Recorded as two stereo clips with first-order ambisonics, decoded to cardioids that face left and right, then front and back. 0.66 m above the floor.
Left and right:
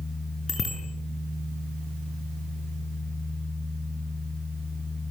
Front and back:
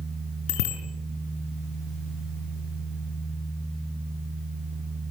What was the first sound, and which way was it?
A bicycle bell, 20° left.